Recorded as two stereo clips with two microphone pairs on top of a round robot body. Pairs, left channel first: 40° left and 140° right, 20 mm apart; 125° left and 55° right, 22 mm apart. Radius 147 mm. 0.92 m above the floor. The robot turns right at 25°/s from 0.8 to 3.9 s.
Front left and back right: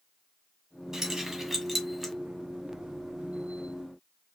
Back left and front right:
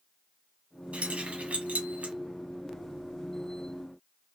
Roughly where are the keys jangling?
Right.